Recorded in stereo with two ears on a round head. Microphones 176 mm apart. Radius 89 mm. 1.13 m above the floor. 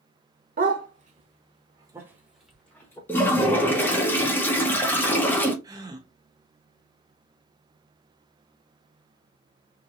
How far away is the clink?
No clink in this recording.